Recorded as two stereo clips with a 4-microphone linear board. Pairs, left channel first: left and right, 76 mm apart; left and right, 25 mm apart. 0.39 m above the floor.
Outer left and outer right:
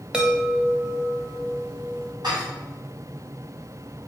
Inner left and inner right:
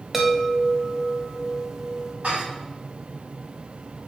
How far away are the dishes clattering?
About 1.9 m.